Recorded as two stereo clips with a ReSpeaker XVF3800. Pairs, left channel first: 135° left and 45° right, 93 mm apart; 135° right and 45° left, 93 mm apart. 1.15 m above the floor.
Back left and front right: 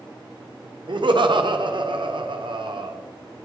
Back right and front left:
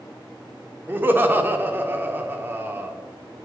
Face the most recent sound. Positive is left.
turn(degrees=-25)